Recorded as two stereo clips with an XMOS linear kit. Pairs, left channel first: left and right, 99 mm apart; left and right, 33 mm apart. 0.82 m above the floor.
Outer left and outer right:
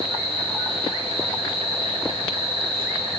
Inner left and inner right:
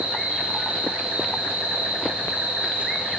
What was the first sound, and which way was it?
An insect, 65° right (ahead or behind).